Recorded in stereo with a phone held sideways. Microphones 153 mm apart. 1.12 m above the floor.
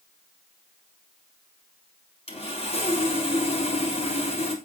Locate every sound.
2.3 s sawing: 40° left (ahead or behind), 3.5 m